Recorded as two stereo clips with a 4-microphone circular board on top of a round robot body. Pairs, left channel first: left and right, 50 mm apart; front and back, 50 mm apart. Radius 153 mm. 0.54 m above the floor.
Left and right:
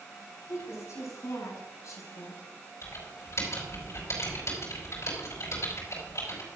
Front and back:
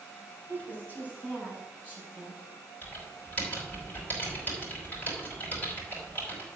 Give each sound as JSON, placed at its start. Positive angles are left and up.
{"t": 0.5, "sound": "a woman speaking", "azimuth_deg": 55, "distance_m": 4.5}
{"t": 2.8, "sound": "typing on a keyboard", "azimuth_deg": 55, "distance_m": 5.5}